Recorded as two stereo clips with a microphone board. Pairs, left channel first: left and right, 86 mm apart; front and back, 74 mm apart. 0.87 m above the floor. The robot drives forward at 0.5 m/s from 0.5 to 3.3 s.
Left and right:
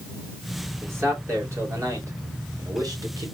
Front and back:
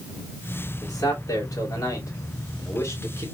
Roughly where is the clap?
No clap in this recording.